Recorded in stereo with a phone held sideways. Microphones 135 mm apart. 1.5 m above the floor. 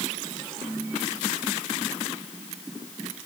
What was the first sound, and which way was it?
Only background noise.